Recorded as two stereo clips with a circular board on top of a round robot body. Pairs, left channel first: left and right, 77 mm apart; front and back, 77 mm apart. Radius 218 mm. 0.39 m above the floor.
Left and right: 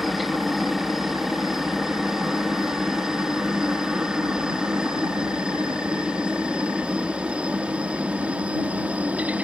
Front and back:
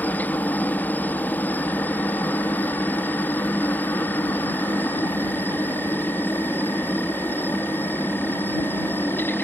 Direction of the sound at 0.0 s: 5° right.